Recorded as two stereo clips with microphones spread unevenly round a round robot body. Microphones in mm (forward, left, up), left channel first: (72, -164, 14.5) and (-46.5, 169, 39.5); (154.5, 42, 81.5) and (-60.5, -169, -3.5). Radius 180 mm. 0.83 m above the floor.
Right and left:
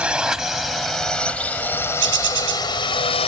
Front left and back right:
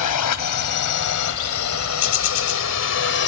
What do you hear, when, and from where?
0.0 s a drone: 20° left; by 3.3 s straight ahead
2.0 s a bird: 50° left